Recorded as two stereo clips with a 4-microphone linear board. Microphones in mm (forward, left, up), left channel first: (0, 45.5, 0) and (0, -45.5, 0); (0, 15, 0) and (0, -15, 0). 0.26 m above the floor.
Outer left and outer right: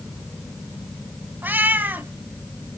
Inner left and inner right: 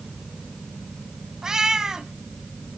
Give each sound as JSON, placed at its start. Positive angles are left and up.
{"t": 1.4, "sound": "a cat meowing", "side_deg": -20, "distance_m": 0.9}